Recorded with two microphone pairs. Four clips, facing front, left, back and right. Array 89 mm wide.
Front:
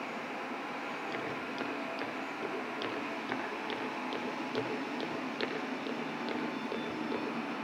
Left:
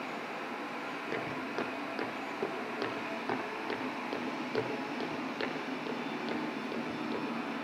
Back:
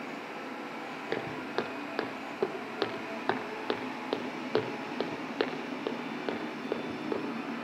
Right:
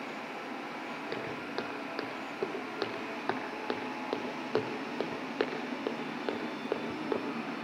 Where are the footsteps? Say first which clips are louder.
Left 2 dB, back 4 dB; 175° right, 4.5 m; by 7.3 s 120° right, 4 m.